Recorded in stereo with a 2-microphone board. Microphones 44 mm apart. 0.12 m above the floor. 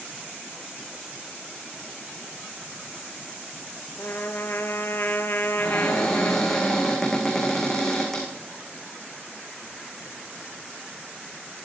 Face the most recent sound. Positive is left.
turn(degrees=10)  # may be behind; listen again after turning